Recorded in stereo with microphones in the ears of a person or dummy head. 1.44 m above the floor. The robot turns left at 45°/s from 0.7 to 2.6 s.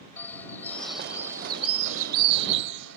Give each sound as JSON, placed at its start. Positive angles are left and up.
{"t": 0.2, "sound": "a bird", "azimuth_deg": 15}